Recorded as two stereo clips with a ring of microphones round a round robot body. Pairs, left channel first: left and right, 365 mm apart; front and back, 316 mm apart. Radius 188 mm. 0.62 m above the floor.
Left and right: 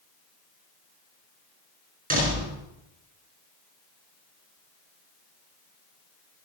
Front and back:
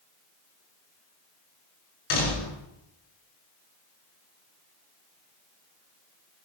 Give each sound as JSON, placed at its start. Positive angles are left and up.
{"t": 2.1, "sound": "a door slam", "azimuth_deg": -20, "distance_m": 6.0}